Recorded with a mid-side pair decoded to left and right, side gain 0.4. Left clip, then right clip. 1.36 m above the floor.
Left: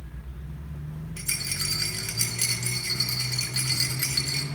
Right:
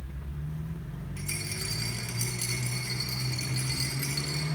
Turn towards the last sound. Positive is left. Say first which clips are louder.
# left 6 dB
turn(degrees=65)